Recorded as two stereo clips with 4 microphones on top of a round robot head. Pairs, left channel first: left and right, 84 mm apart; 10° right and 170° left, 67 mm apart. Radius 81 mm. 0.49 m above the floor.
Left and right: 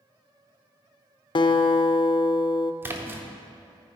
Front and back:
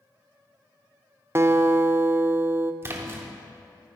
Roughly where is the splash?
Behind right.